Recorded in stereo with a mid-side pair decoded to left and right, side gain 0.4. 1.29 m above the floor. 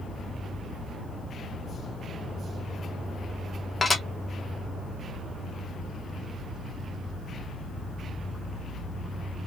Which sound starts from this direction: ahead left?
Dishes clattering, at 3.8 s.